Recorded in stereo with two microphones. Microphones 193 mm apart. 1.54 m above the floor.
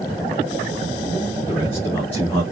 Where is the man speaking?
25° left (ahead or behind), 2.5 m.